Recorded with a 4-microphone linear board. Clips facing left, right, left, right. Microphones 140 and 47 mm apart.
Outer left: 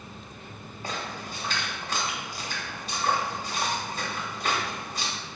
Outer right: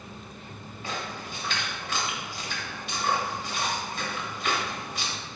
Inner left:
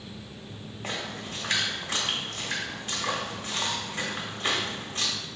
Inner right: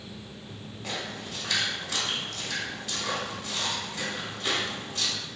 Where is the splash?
40° left (ahead or behind), 1.2 m.